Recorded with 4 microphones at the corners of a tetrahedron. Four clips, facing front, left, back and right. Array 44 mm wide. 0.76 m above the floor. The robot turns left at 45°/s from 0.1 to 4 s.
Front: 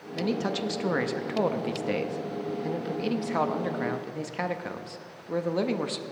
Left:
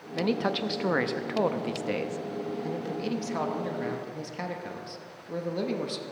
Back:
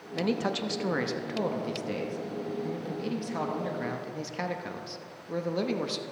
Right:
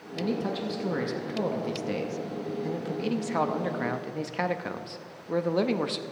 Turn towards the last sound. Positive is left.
turn(degrees=-65)